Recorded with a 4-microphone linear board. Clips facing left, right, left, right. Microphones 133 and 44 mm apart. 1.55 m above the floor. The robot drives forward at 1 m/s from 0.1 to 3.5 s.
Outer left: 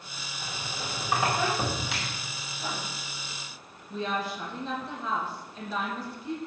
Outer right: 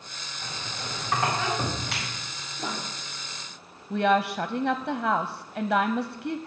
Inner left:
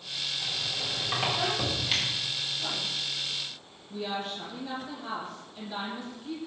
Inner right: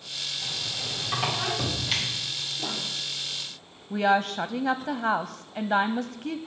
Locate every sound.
0.4 s a squeak: 10° left (ahead or behind), 3.5 m; by 2.1 s 5° left (ahead or behind), 5 m
2.6 s writing: 40° right (ahead or behind), 5 m
3.9 s a woman speaking: 75° right (ahead or behind), 0.5 m